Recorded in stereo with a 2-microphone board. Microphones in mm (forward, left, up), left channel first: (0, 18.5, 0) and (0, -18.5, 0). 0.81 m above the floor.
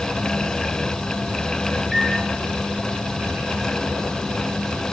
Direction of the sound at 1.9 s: 15° right (ahead or behind).